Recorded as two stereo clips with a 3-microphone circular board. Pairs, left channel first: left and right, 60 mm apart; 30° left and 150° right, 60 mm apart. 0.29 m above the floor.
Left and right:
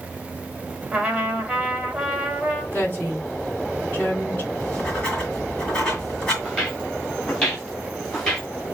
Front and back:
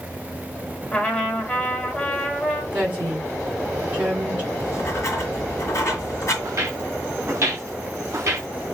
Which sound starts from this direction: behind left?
A woman speaking, at 2.7 s.